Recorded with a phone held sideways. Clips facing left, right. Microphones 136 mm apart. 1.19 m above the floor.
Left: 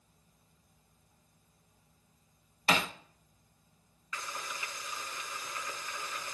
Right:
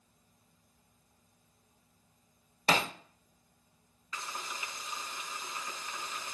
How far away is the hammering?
About 1.4 m.